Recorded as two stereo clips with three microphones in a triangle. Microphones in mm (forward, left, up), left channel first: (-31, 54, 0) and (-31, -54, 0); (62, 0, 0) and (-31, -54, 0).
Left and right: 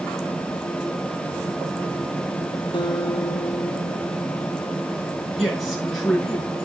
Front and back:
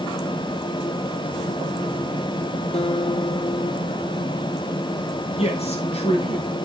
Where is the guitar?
45° left, 2.5 m.